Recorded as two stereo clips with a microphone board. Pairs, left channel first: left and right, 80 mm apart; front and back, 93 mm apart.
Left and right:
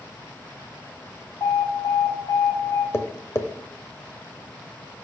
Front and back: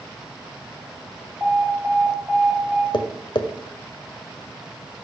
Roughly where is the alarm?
Behind left.